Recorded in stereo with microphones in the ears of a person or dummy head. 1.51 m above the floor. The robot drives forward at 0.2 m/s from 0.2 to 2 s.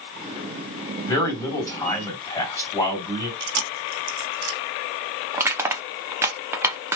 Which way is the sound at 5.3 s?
10° right (ahead or behind).